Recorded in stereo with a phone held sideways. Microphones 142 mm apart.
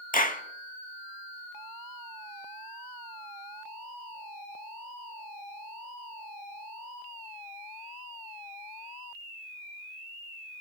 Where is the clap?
75° left (ahead or behind), 1.3 m.